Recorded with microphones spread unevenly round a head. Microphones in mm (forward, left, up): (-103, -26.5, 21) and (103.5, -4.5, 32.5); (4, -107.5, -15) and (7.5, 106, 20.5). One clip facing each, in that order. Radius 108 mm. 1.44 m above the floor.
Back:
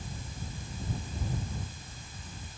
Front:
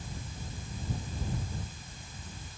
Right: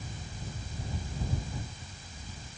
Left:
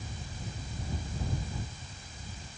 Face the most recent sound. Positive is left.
No sound to turn to.